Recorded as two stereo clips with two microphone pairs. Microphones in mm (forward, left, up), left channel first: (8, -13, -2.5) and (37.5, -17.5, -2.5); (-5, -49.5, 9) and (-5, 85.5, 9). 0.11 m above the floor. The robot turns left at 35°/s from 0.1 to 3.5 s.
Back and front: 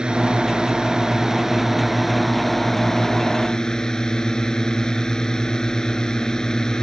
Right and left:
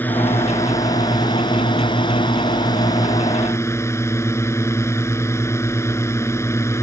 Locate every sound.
0.0 s a drone: 25° right; by 6.8 s 145° right